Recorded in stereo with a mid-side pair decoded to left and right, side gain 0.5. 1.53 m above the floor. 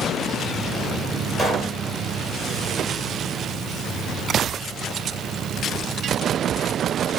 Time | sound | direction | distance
1.4 | a pop | 25° right | 1.3 m